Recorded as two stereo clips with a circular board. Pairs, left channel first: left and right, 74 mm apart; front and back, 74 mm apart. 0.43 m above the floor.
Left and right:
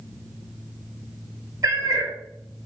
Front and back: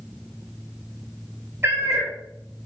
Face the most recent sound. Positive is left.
turn(degrees=-130)